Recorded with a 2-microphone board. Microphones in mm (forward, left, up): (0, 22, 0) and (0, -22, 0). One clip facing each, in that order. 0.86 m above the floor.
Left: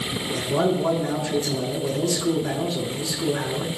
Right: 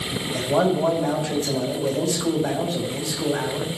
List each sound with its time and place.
0.3 s a man speaking: 65° right (ahead or behind), 3 m